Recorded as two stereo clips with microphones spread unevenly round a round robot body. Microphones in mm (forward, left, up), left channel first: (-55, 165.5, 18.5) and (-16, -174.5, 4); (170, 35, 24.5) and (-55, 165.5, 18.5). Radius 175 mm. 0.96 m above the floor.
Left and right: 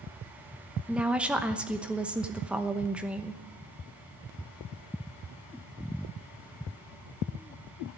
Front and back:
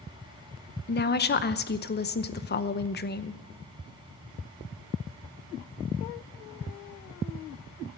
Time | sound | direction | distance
0.9 | a woman speaking | straight ahead | 0.9 m